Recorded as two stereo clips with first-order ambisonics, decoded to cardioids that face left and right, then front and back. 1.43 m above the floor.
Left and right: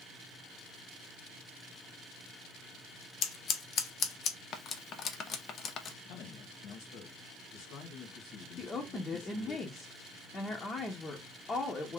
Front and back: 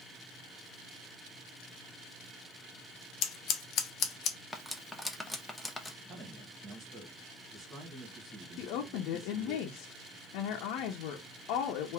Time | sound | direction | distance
3.2 | scissors | 45° left | 0.6 m
4.5 | cutlery clinking | 80° left | 0.6 m
6.0 | a man speaking | 115° left | 1.2 m
8.6 | a woman speaking | 20° left | 0.7 m